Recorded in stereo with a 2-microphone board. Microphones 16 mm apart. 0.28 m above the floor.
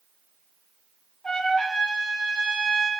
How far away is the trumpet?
About 7.5 m.